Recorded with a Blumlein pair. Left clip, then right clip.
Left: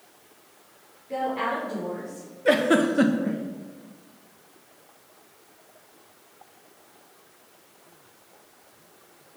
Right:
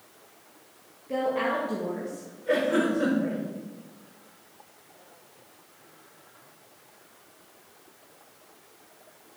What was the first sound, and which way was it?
A woman speaking, 20° right.